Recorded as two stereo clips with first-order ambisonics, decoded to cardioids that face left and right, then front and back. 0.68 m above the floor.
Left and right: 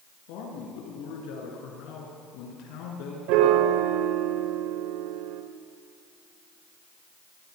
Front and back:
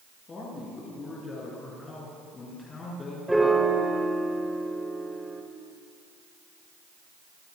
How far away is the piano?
About 2.5 m.